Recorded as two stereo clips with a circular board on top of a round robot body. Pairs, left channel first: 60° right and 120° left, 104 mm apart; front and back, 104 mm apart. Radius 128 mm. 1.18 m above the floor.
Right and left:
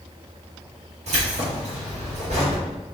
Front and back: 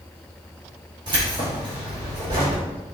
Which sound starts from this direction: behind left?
Keys jangling, at 1.1 s.